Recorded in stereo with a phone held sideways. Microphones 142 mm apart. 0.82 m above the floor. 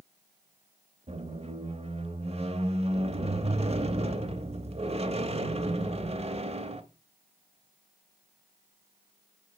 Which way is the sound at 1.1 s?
45° right (ahead or behind).